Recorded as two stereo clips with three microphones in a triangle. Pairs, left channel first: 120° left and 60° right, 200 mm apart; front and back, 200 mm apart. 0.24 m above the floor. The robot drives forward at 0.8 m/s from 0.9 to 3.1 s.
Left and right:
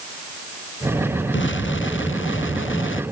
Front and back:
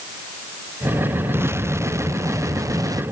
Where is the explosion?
100° left; by 3.0 s 105° left.